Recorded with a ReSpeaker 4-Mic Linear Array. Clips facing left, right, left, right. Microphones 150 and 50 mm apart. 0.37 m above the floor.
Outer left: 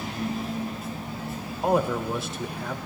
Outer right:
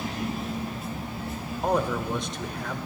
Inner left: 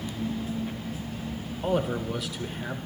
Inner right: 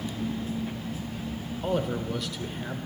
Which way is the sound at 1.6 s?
5° left (ahead or behind).